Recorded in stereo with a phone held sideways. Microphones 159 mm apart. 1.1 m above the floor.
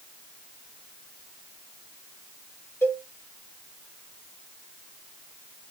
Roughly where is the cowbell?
Centre.